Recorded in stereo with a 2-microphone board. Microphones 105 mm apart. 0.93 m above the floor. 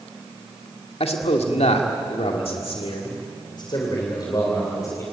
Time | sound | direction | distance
1.0 | a man speaking | 70° left (ahead or behind) | 2.5 m